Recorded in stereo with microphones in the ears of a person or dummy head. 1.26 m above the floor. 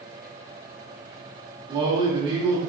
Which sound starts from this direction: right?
A man speaking, at 1.7 s.